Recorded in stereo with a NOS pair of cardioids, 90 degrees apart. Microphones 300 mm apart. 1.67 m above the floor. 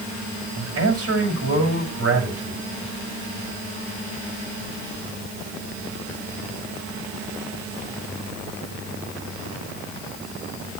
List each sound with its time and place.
0.6 s a man speaking: 50° right, 9 m